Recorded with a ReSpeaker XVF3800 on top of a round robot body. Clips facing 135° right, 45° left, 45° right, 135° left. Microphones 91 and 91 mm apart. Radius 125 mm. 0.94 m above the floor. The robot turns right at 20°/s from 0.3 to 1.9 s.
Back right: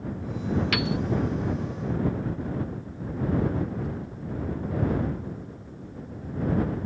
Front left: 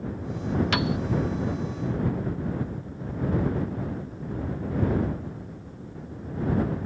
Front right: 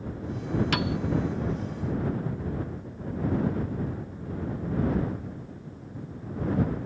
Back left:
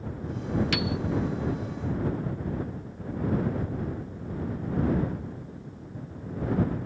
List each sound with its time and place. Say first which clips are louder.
0.7 s a piano: front left 1 dB, front right 1 dB; 10° right; by 1.0 s 5° right